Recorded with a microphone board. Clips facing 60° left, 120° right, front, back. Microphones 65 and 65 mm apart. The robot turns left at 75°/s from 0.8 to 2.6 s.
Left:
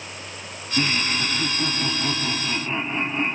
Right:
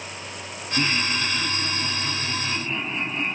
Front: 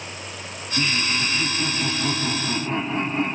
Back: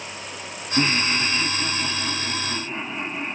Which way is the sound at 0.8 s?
125° left.